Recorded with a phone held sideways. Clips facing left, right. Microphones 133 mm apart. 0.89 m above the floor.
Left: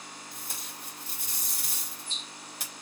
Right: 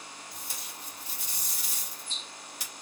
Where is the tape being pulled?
55° left (ahead or behind), 1.5 m.